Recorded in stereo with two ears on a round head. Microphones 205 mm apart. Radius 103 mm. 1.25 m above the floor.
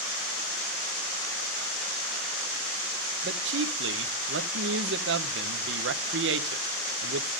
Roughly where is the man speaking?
Right.